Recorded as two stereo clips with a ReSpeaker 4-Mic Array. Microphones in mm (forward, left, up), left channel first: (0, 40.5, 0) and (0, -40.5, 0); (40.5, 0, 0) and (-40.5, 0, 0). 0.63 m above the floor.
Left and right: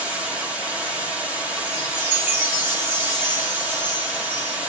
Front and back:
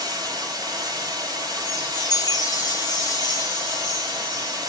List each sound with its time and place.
0.0 s running water: 160° right, 1.2 m
1.7 s a chime: 30° right, 1.0 m